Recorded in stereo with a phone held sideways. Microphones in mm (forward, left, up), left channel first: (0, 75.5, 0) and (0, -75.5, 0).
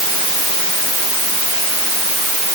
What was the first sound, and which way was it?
Only background noise.